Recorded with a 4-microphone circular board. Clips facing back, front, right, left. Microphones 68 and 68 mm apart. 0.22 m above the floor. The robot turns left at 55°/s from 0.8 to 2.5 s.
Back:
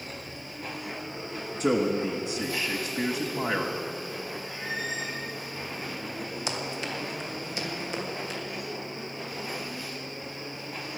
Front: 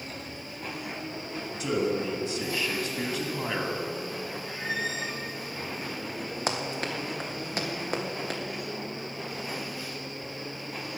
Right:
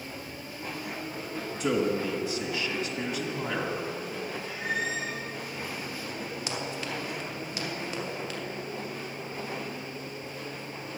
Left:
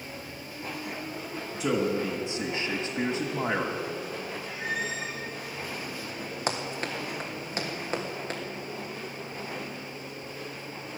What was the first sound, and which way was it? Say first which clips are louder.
A man speaking: back 3 dB, even; 170° left.